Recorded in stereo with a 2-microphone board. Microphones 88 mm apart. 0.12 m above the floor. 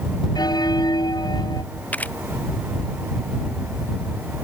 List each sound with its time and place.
0.3 s a bell: 50° left (ahead or behind)
1.9 s a camera shutter: 15° left (ahead or behind)